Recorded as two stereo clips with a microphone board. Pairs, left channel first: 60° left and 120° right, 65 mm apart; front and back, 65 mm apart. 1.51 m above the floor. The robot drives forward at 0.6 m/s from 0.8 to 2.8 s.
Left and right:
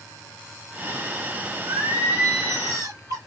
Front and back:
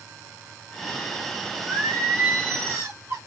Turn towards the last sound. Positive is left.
turn(degrees=-130)